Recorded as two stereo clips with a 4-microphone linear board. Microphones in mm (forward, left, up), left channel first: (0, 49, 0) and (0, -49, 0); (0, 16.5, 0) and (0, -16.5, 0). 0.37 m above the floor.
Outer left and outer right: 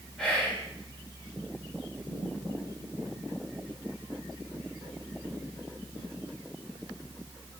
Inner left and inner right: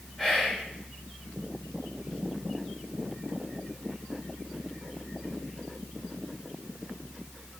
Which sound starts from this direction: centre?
Whispering, at 0.2 s.